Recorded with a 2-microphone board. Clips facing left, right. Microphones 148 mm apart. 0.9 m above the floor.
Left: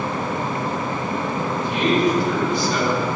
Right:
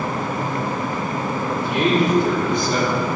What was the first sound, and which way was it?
A man speaking, 65° right (ahead or behind).